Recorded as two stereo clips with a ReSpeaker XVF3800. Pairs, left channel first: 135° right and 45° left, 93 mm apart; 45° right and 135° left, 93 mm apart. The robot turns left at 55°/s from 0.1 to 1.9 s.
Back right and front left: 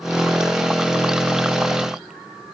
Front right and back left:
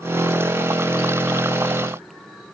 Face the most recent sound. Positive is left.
No sound to turn to.